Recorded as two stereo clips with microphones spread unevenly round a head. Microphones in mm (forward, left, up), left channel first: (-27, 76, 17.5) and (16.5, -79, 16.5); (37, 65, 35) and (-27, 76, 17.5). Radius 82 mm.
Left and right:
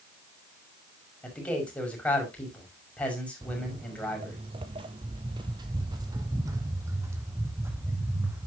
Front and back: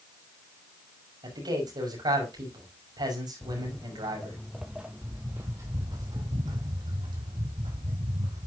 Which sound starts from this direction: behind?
A man speaking, at 1.2 s.